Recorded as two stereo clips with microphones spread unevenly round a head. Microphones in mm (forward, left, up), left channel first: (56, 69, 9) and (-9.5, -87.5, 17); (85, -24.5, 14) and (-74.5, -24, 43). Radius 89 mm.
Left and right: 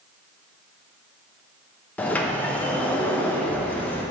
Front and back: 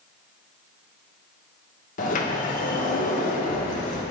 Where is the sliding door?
15° right, 0.9 m.